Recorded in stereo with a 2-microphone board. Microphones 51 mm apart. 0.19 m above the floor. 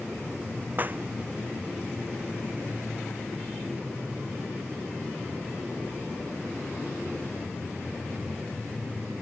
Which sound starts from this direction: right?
A clap, at 0.8 s.